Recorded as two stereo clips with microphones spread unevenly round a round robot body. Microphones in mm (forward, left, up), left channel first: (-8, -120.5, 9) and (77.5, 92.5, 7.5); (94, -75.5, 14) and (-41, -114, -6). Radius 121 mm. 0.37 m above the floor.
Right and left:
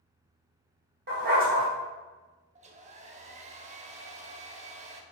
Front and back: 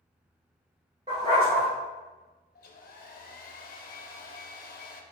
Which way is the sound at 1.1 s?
120° left.